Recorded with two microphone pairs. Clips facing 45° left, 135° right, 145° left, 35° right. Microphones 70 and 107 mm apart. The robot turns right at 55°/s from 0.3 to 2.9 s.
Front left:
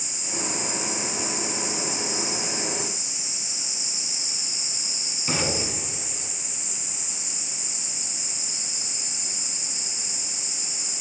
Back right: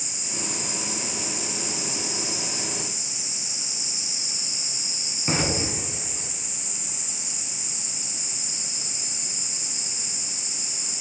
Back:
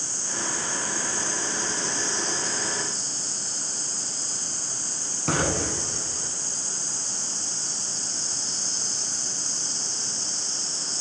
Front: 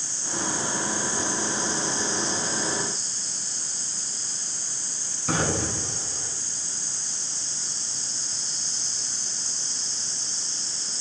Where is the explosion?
160° left, 2.5 m.